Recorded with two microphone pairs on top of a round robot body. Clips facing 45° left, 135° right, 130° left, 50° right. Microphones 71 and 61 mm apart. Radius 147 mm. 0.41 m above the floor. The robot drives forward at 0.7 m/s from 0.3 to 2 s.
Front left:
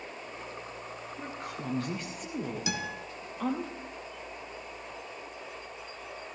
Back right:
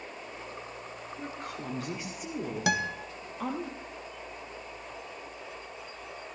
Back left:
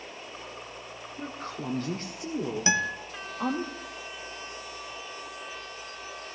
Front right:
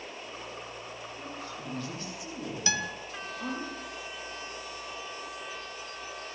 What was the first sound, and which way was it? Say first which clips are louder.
A woman speaking: even, back left 7 dB; 125° left.